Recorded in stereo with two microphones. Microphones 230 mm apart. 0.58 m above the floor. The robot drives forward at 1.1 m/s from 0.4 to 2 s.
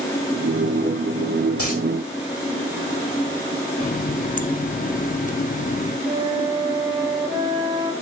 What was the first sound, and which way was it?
A dropped coin, 75° left (ahead or behind).